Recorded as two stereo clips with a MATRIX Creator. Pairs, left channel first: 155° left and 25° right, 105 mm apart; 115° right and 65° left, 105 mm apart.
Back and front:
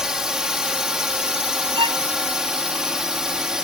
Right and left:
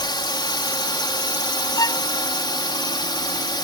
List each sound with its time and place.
0.0 s a drone: 105° right
1.8 s a violin: 60° right